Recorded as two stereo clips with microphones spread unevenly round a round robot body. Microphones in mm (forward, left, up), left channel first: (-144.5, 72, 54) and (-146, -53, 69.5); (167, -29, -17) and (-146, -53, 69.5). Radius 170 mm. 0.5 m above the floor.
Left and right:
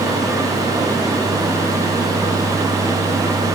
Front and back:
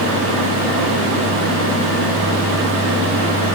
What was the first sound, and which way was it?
Only background noise.